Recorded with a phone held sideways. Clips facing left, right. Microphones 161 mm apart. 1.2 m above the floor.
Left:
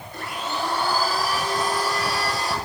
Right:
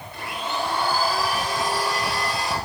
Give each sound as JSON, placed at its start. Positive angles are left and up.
{"t": 0.1, "sound": "a blender", "side_deg": 45, "distance_m": 9.5}